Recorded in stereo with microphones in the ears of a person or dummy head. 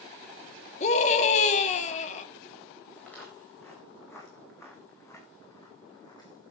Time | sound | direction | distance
0.8 | a scream | 40° left (ahead or behind) | 2.5 m
3.0 | footsteps | 5° left (ahead or behind) | 6 m